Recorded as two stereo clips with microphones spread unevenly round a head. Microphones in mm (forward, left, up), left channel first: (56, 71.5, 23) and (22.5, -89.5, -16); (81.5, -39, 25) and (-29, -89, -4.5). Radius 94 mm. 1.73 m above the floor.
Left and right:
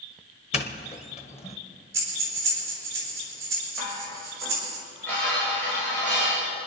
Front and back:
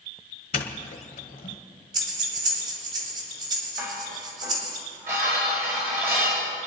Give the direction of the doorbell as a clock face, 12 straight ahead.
11 o'clock.